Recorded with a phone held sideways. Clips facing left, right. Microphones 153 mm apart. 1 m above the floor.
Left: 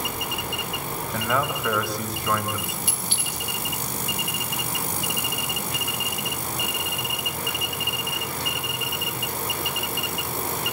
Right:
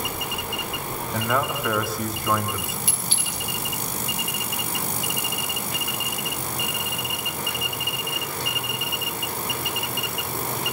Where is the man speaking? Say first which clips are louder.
Right 1 dB; centre (ahead or behind), 5 m.